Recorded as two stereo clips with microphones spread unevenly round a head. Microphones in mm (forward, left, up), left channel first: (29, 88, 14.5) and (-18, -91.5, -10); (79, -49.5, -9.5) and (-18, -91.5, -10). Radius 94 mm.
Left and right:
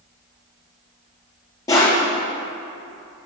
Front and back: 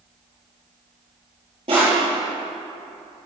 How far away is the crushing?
About 5 m.